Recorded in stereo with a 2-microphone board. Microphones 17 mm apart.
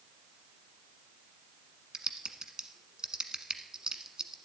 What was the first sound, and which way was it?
Typing on a keyboard, 50° right (ahead or behind).